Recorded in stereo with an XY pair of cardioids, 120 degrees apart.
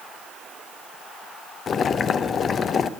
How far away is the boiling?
About 0.5 m.